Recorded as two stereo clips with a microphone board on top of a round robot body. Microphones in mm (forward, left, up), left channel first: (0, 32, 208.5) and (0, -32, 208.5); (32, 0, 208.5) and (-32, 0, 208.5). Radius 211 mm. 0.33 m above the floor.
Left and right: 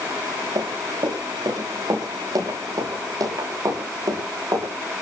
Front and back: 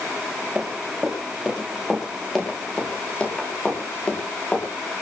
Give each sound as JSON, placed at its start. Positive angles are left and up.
{"t": 0.6, "sound": "running footsteps", "azimuth_deg": -100, "distance_m": 8.5}